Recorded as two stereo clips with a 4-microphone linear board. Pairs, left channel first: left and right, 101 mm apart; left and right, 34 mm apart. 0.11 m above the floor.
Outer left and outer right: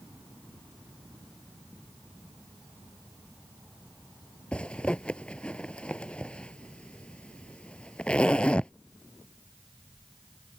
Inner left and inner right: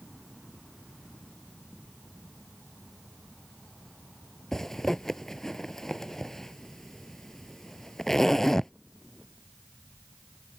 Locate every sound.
4.5 s a zipper: 10° left (ahead or behind)